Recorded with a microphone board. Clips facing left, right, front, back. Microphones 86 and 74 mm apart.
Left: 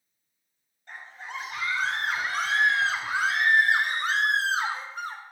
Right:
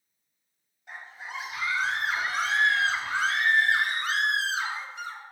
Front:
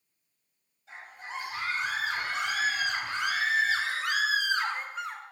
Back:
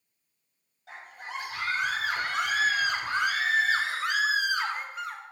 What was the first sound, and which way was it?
A scream, 170° right.